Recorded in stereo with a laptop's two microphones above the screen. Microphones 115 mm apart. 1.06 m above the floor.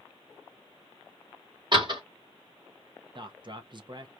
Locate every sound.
1.7 s a door slam: 45° right (ahead or behind), 0.9 m
3.1 s a man speaking: 45° right (ahead or behind), 0.6 m